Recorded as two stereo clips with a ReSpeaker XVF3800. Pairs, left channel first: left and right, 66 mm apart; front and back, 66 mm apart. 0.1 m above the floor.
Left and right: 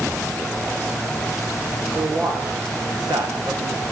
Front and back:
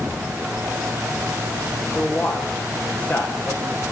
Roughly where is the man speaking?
Right.